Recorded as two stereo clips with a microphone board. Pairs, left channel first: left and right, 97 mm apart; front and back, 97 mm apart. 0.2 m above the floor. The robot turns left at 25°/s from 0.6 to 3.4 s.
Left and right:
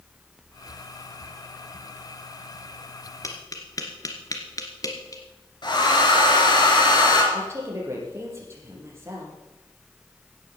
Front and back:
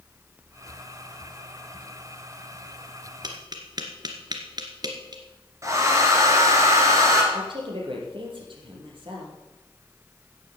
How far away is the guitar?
No guitar in this recording.